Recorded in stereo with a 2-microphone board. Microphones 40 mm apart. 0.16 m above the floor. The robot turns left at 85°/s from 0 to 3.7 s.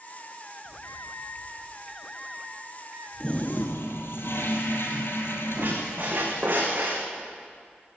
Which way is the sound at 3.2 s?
155° left.